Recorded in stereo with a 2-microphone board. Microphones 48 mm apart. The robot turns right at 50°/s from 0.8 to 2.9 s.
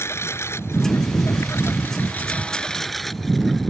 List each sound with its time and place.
0.0 s a lawn mower: 70° left; by 3.7 s 175° left